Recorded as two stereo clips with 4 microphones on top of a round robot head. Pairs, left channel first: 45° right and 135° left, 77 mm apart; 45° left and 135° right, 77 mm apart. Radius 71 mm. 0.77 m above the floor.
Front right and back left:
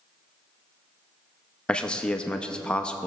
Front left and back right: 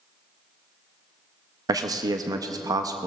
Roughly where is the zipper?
No zipper in this recording.